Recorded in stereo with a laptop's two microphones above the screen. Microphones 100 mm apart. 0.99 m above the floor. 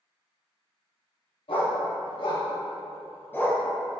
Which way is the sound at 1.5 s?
70° left (ahead or behind).